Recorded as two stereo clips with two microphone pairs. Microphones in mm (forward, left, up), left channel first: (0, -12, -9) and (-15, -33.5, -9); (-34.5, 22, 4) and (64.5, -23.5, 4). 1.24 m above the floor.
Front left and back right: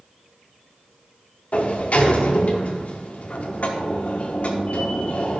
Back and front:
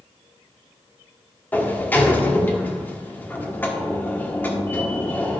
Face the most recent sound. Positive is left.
turn(degrees=85)